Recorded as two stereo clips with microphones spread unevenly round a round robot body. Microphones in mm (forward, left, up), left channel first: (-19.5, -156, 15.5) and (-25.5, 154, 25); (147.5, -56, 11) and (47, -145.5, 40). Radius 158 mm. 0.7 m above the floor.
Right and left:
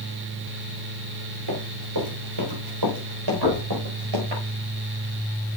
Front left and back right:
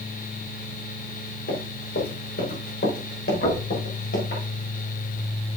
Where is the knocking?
65° left, 3.5 m.